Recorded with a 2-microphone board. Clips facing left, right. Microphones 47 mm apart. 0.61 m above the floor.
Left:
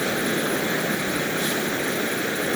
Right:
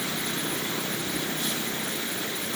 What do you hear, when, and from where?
0.0 s running water: 75° left (ahead or behind)